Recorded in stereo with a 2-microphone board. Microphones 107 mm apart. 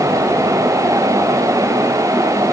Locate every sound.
Only background noise.